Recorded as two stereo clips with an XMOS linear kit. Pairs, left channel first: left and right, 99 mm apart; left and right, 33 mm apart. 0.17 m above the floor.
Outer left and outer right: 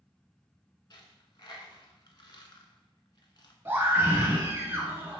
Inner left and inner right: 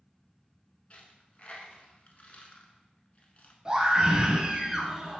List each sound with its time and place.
0.9 s a dropped coin: 45° left (ahead or behind), 0.5 m
3.6 s a scream: 25° right (ahead or behind), 1.2 m